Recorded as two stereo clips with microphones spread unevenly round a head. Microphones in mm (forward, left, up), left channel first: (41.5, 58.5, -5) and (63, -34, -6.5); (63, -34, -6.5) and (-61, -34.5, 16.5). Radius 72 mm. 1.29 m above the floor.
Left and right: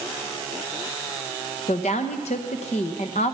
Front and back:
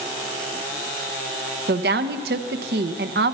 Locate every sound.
1.7 s a woman speaking: 155° left, 1.0 m